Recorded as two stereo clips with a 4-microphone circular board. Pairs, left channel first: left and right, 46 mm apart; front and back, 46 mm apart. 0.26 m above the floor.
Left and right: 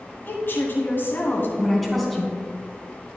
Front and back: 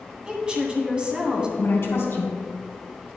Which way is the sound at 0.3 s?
115° left.